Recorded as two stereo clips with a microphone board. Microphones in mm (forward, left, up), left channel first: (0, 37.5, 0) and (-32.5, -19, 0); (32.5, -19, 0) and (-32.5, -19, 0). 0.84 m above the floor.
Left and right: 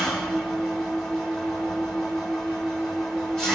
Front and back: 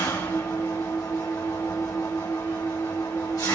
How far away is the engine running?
About 1.6 m.